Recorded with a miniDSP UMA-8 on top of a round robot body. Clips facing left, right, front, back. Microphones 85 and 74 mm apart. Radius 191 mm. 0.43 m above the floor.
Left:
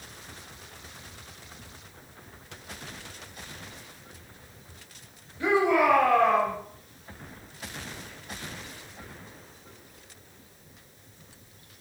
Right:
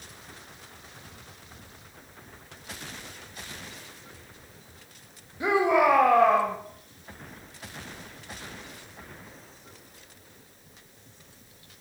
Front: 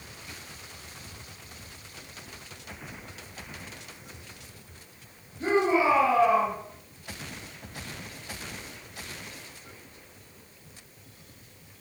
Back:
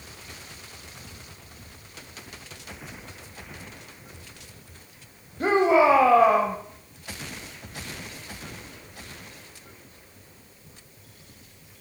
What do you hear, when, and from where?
5.4 s a shout: 160° right, 3 m